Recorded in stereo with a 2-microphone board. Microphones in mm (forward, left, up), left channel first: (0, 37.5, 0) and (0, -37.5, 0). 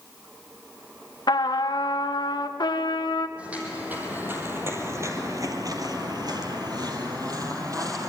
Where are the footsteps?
15° right (ahead or behind), 4 m; by 8.1 s 45° right (ahead or behind), 3.5 m.